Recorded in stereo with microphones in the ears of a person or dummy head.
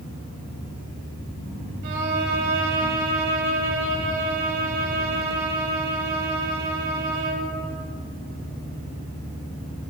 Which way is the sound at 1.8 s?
60° right (ahead or behind).